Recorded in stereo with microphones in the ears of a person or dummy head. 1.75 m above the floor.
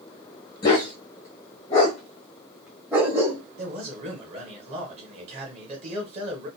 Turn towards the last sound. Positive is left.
turn(degrees=-35)  # may be behind; listen again after turning